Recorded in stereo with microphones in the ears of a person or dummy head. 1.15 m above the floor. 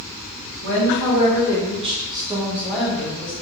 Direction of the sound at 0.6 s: 55° right (ahead or behind).